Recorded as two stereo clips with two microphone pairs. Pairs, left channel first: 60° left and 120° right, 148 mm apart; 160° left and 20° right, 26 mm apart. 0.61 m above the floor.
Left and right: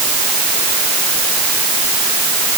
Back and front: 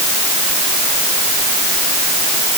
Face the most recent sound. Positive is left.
No sound to turn to.